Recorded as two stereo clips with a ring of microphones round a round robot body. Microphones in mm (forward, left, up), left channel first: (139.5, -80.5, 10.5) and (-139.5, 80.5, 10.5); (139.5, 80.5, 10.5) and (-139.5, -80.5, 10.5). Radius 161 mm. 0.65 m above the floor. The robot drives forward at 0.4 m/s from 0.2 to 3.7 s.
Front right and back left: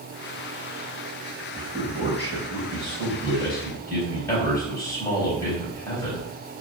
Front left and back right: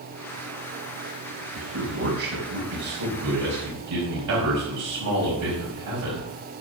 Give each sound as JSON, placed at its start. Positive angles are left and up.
{"t": 1.6, "sound": "a man speaking", "azimuth_deg": -100, "distance_m": 4.5}